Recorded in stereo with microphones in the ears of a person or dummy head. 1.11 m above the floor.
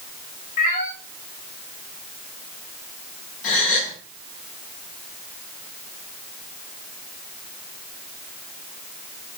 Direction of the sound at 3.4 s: 45° left (ahead or behind).